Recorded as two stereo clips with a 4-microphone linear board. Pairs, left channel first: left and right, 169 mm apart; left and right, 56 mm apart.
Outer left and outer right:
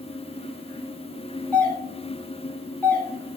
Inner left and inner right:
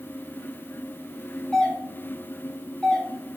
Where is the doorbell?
10° left (ahead or behind), 1.2 m.